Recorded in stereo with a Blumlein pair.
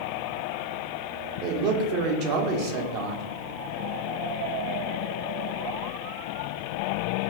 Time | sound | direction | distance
1.4 | a man speaking | 40° right | 0.8 m